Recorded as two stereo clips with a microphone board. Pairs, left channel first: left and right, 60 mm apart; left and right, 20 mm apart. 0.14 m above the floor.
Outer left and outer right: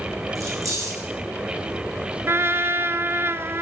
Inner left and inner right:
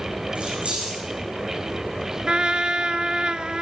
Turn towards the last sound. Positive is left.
turn(degrees=-45)  # may be behind; listen again after turning